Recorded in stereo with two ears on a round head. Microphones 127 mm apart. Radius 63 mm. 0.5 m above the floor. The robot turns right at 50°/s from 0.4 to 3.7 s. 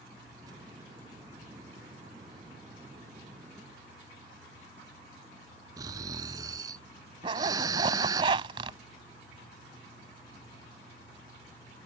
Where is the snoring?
25° right (ahead or behind).